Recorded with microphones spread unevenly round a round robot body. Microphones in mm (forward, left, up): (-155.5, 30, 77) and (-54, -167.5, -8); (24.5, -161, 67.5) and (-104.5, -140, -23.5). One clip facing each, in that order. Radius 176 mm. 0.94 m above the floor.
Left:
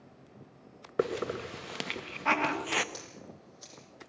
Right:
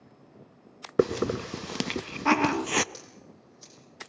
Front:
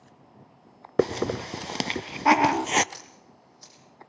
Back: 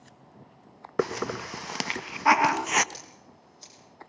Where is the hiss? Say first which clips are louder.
Right 6 dB, front 4 dB; 80° right, 0.7 m.